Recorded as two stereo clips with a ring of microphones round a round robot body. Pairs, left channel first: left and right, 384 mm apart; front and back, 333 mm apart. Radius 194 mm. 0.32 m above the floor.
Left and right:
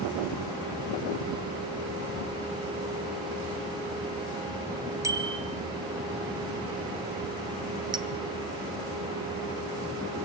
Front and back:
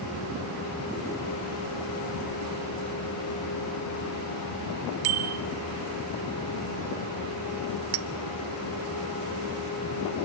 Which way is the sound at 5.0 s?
170° right.